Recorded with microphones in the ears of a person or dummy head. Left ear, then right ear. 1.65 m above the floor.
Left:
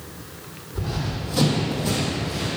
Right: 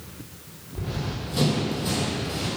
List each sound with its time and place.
0.8 s running footsteps: 25° left (ahead or behind), 2.5 m; by 2.5 s 15° right (ahead or behind), 2.5 m